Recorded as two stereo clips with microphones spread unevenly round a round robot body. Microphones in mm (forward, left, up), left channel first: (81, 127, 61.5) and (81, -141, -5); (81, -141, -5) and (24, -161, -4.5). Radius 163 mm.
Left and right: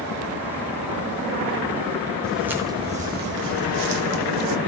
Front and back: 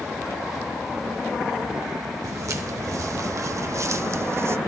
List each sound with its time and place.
2.2 s footsteps: 170° left, 1.1 m; by 4.6 s 120° right, 1.3 m